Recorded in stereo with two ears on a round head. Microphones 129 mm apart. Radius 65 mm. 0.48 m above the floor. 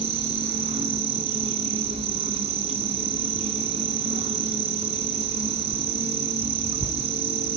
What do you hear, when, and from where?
0.0 s an insect: 45° right (ahead or behind), 2 m